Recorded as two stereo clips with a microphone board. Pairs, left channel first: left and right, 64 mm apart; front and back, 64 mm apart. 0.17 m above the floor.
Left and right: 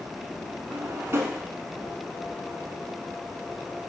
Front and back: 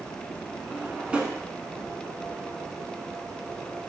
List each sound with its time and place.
0.7 s a drawer: 115° right, 0.5 m